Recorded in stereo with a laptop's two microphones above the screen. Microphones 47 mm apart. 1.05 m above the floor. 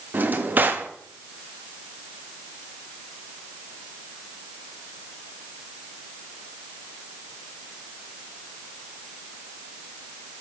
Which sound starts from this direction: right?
A drawer, at 0.1 s.